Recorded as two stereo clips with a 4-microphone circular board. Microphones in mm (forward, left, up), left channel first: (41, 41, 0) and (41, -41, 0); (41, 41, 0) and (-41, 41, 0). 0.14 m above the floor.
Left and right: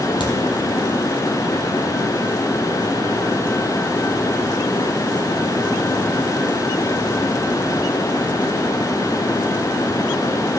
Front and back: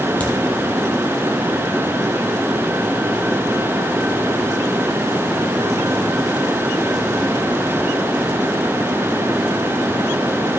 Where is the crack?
75° left, 1.8 m.